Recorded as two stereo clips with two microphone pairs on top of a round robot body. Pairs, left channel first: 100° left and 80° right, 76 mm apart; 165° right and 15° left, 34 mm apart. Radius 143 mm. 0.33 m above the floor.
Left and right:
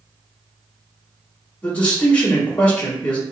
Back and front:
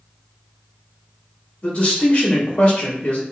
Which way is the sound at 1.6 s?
175° left.